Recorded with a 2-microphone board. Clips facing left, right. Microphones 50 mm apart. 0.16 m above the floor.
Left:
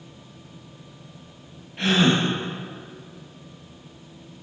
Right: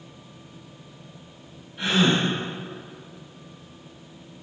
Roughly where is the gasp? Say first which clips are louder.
Left 2 dB; left.